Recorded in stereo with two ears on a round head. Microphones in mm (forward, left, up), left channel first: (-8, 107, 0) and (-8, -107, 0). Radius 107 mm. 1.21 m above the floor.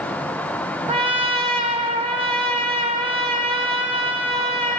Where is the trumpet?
25° right (ahead or behind), 1.7 m.